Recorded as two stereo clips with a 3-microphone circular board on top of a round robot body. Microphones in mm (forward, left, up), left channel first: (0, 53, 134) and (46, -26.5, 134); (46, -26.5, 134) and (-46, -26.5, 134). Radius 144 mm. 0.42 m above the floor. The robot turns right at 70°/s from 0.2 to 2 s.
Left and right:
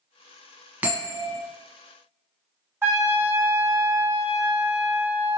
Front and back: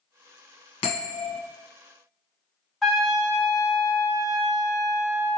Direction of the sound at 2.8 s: 90° right.